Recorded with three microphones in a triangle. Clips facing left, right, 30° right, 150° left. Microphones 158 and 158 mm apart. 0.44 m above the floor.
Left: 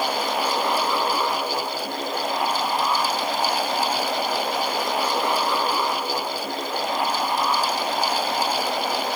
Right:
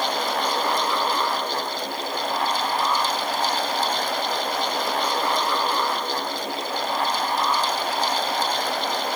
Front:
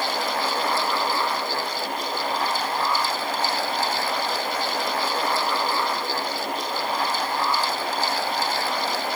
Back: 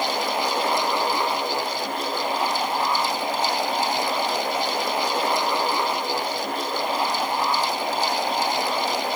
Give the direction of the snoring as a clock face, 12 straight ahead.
I don't hear snoring.